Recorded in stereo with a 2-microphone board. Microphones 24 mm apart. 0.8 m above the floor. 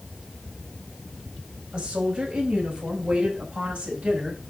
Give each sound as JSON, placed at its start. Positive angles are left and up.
{"t": 1.7, "sound": "a woman speaking", "side_deg": -55, "distance_m": 4.5}